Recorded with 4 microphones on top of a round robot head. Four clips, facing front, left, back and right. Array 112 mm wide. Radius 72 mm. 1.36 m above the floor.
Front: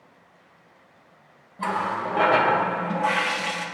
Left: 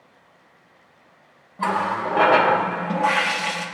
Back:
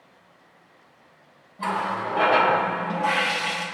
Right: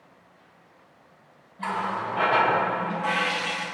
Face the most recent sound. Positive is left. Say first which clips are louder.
# left 6 dB, even
turn(degrees=85)